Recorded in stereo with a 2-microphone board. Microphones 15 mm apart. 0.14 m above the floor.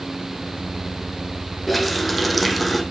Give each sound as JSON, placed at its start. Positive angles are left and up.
{"t": 1.7, "sound": "a running tap", "side_deg": 0, "distance_m": 4.0}